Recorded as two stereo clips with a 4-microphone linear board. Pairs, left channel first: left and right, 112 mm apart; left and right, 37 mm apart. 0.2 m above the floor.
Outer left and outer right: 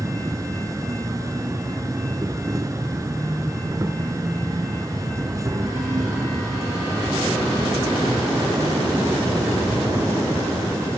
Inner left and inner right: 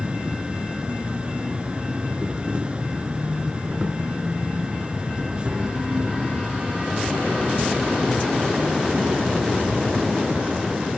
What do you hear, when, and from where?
0.0 s an insect: 30° right (ahead or behind), 1.2 m